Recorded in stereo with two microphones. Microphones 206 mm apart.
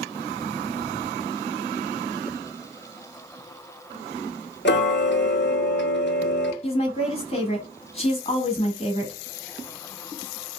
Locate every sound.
4.7 s ticking: 60° left (ahead or behind), 0.5 m
6.6 s a woman speaking: 30° left (ahead or behind), 1.1 m